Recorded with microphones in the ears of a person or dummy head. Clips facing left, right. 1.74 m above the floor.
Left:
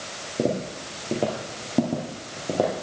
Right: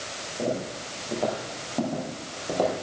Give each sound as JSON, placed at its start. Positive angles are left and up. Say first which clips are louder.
{"t": 0.4, "sound": "footsteps", "louder": "left 4 dB", "side_deg": 30, "distance_m": 2.0}